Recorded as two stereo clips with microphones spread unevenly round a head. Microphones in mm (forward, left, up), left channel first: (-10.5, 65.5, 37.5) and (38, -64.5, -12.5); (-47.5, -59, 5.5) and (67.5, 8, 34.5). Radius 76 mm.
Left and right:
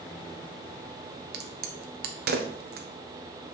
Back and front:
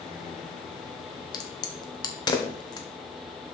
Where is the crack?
90° right, 1.2 m.